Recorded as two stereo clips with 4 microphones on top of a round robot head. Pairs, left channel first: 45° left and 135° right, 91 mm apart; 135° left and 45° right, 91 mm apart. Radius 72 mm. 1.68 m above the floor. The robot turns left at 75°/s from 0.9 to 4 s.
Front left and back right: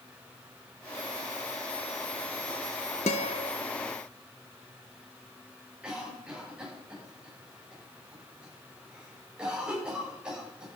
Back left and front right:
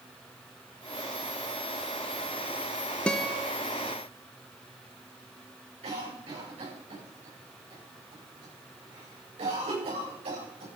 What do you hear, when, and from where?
3.1 s a guitar: 55° left, 0.9 m; by 3.5 s 25° left, 0.9 m
5.8 s a cough: 55° right, 9.5 m